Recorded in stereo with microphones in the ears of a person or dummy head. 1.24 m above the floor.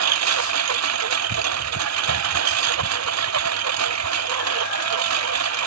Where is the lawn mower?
85° right.